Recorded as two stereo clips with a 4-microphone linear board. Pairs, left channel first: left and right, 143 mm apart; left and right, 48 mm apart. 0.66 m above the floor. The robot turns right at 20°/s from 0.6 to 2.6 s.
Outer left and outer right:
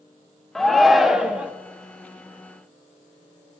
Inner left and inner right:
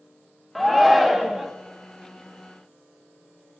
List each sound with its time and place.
0.6 s a shout: centre (ahead or behind), 0.6 m; by 1.5 s 10° right (ahead or behind), 0.6 m